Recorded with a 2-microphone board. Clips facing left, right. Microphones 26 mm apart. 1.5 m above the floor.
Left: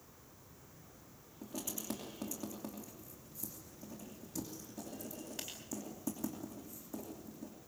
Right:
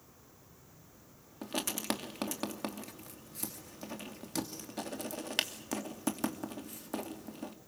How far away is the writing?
About 2.5 m.